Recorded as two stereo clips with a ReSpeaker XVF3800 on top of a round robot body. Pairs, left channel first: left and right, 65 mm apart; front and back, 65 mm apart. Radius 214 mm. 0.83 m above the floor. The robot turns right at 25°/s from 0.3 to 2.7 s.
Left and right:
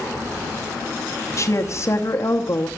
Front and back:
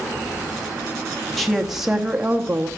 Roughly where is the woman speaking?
Left.